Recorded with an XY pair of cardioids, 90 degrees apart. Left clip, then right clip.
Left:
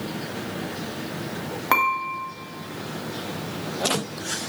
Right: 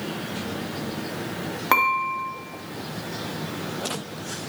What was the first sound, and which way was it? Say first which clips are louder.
Dishes clattering: right 1 dB; 5° right.